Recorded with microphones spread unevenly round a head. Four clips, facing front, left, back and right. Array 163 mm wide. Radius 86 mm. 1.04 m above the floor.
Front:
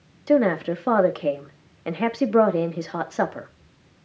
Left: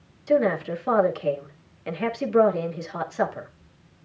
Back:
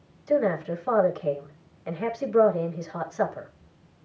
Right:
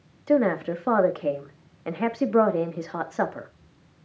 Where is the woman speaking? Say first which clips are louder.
Even, front 4 dB; 25° right, 1.9 m.